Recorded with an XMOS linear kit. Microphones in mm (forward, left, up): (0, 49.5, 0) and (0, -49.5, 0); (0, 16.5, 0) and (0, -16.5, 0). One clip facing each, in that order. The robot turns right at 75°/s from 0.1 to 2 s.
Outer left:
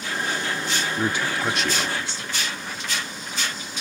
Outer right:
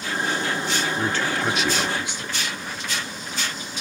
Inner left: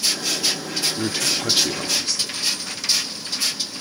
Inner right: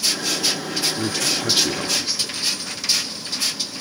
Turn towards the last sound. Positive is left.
turn(degrees=-15)  # may be behind; listen again after turning